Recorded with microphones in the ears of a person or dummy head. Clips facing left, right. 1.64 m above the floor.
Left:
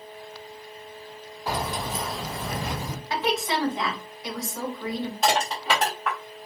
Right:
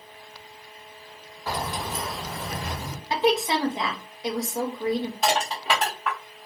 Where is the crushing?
5° right (ahead or behind), 0.9 m.